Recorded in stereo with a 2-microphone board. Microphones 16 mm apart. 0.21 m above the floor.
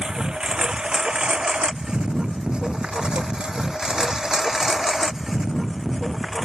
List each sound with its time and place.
0.0 s a lawn mower: 70° right (ahead or behind); by 6.5 s 15° right (ahead or behind)